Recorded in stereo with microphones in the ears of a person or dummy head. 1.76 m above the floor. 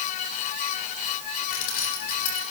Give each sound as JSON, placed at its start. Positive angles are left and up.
{"t": 1.5, "sound": "keys jangling", "side_deg": 55, "distance_m": 4.0}